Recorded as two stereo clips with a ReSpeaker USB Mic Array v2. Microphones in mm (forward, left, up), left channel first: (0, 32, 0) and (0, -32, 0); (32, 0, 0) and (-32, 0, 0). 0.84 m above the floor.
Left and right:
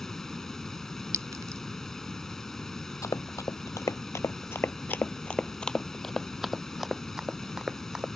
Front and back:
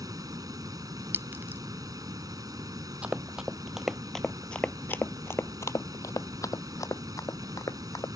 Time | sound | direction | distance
0.0 | running water | 170° left | ?
1.1 | a clink | 120° right | ?
3.0 | running footsteps | 115° left | ?